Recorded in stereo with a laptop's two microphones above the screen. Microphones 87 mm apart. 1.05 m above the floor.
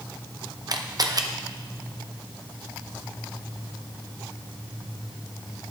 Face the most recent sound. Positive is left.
turn(degrees=-50)  # may be behind; listen again after turning